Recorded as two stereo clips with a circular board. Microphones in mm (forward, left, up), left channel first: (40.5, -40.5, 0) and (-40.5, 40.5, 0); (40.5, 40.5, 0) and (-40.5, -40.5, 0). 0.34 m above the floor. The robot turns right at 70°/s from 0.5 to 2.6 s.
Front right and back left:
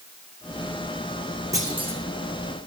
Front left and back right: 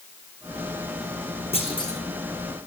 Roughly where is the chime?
No chime in this recording.